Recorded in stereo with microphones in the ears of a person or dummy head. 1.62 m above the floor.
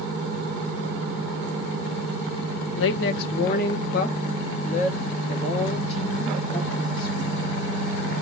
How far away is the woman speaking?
About 0.7 m.